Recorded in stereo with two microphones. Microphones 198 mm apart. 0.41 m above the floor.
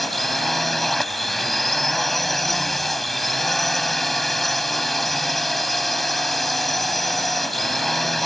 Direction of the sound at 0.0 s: Centre (ahead or behind).